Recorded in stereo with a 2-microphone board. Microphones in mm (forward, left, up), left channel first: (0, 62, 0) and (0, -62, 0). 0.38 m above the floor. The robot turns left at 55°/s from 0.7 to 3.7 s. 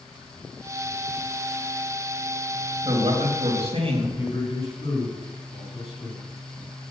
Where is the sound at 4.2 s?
60° left (ahead or behind), 4 m.